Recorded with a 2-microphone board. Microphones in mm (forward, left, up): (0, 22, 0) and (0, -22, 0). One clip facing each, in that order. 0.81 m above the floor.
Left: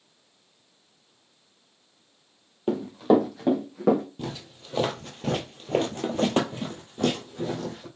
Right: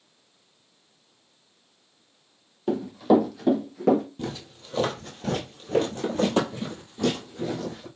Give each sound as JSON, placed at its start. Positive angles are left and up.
{"t": 2.7, "sound": "running footsteps", "side_deg": 25, "distance_m": 1.0}
{"t": 4.2, "sound": "footsteps", "side_deg": 15, "distance_m": 1.1}